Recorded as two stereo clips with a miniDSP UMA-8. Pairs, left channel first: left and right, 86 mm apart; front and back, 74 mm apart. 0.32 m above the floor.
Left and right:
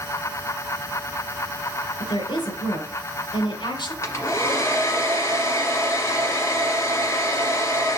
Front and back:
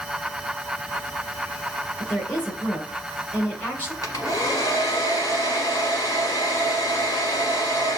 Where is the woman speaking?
65° left, 2.5 m.